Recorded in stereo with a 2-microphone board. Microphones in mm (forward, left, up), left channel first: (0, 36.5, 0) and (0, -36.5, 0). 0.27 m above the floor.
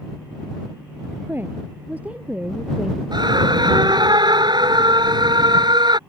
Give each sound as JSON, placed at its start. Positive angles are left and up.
{"t": 1.3, "sound": "a woman speaking", "side_deg": -25}
{"t": 3.1, "sound": "a scream", "side_deg": -70}